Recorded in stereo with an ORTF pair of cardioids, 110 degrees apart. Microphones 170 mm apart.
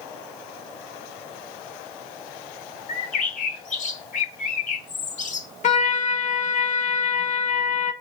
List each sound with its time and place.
2.9 s a bird: 50° left, 1.4 m
5.6 s a trumpet: 45° left, 1.9 m